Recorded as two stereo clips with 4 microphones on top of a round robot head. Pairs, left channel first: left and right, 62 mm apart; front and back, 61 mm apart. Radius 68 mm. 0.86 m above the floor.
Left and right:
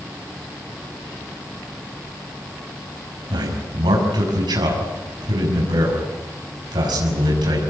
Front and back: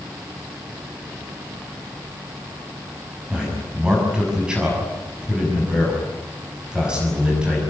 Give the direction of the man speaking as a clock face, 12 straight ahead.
3 o'clock.